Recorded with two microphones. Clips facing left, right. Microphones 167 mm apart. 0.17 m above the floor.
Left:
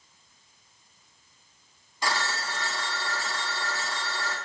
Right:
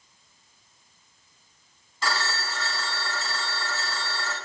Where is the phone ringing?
15° left (ahead or behind), 0.7 m.